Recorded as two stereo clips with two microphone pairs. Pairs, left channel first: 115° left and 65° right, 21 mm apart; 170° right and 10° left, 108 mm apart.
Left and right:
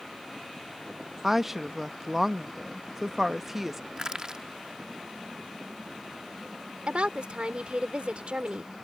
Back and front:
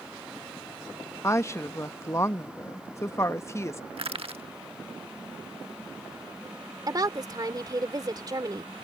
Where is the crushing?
10° right.